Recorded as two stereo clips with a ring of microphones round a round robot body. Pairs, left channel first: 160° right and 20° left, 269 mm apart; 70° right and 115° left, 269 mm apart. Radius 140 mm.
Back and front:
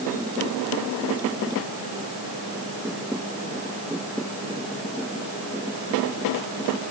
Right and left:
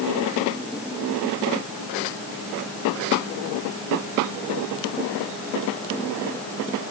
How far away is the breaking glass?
No breaking glass in this recording.